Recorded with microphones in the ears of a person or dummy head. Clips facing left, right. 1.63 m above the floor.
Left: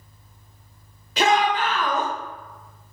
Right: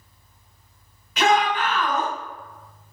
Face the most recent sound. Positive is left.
turn(degrees=30)  # may be behind; listen again after turning